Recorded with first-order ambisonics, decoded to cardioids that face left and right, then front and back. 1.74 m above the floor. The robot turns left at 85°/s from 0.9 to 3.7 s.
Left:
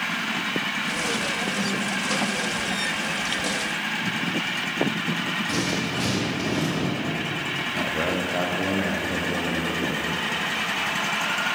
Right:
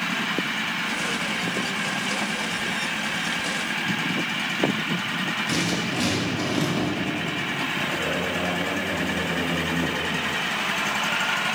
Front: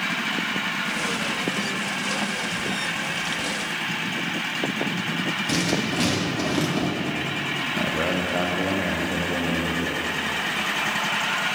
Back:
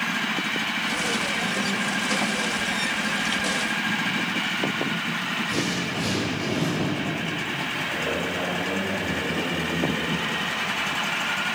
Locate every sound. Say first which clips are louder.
5.5 s writing: right 1 dB, front 2 dB; 20° right, 1.7 m
7.7 s a man speaking: even, front 3 dB; 40° left, 0.8 m